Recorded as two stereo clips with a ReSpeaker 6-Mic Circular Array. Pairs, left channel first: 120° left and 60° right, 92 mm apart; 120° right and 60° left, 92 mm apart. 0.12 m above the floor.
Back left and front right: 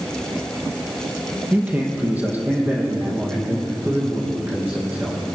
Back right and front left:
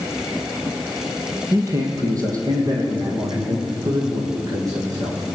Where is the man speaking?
15° left, 2.5 m; by 5.2 s 10° left, 7.5 m.